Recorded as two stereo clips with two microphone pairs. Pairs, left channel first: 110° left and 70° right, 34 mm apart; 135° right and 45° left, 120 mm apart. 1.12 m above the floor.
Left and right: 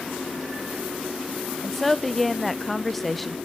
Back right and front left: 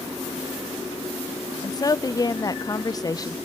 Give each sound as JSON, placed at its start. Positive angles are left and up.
{"t": 1.6, "sound": "a woman speaking", "azimuth_deg": -170, "distance_m": 0.6}